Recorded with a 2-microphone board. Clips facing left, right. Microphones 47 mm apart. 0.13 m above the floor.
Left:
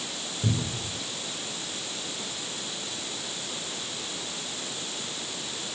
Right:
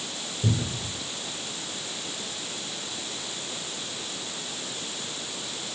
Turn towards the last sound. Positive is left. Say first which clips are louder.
# right 1 dB
turn(degrees=0)  # may be behind; listen again after turning